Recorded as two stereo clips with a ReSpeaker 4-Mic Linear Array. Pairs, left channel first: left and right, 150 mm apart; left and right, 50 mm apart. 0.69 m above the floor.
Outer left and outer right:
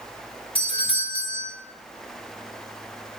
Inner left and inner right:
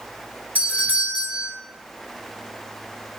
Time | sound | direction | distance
0.6 | a doorbell | 35° left (ahead or behind) | 3 m